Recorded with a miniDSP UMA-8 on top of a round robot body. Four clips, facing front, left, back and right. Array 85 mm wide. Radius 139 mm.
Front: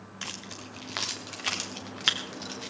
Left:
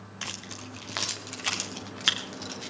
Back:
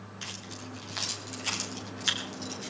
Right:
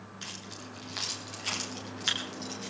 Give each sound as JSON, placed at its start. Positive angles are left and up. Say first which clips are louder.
{"t": 0.2, "sound": "keys jangling", "louder": "left 6 dB, front 2 dB", "azimuth_deg": 60, "distance_m": 1.1}